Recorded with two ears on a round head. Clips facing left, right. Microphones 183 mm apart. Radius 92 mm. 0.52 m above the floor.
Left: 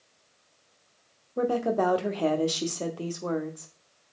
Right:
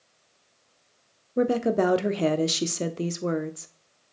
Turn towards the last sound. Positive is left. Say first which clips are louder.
# right 3 dB
turn(degrees=-30)  # may be behind; listen again after turning